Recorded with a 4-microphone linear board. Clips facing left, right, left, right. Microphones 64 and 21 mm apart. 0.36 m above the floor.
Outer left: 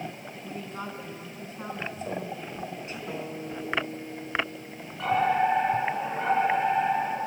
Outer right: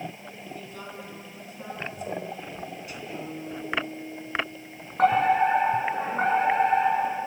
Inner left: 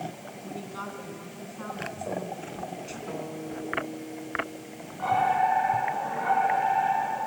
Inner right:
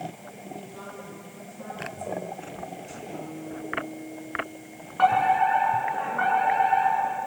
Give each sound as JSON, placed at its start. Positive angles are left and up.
{"t": 0.3, "sound": "a woman speaking", "side_deg": 35, "distance_m": 3.5}
{"t": 3.1, "sound": "a guitar", "side_deg": 75, "distance_m": 9.5}
{"t": 5.0, "sound": "a fire alarm", "side_deg": -50, "distance_m": 7.5}